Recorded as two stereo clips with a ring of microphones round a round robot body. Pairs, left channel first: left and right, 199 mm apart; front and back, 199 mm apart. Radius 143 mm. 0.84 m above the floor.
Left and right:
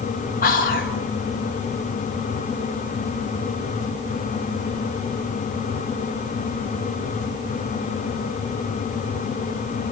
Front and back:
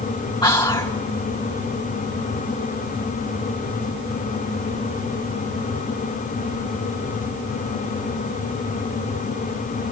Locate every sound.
0.4 s whispering: 65° left, 1.2 m